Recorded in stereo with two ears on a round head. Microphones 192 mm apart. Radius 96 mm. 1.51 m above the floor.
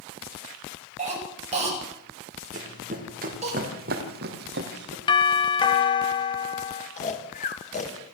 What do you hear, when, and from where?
1.0 s a cough: 30° right (ahead or behind), 9.5 m
2.5 s running footsteps: 35° right (ahead or behind), 4 m; by 5.0 s 50° right (ahead or behind), 3 m
5.1 s a doorbell: 20° left (ahead or behind), 1.5 m
7.0 s snoring: 35° left (ahead or behind), 2.5 m